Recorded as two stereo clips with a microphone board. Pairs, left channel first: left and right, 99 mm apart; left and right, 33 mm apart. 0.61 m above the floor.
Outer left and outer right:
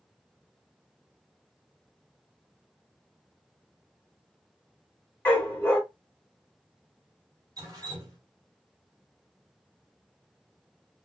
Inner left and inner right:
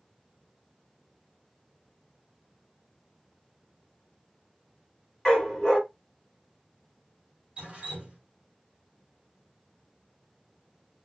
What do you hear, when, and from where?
5.2 s a dog barking: 25° left (ahead or behind), 1.0 m
7.6 s dripping: 40° right (ahead or behind), 1.5 m